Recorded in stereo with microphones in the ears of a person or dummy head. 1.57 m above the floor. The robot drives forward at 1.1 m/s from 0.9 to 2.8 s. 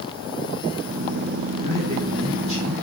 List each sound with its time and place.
1.6 s a man speaking: 35° right (ahead or behind), 3.5 m; by 2.7 s 25° right (ahead or behind), 4.5 m